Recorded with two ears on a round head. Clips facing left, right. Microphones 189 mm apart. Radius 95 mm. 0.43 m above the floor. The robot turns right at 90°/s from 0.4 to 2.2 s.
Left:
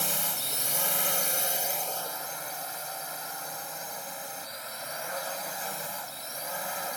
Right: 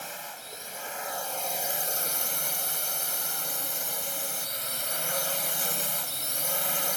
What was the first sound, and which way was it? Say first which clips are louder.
A drone: left 5 dB; 70° left.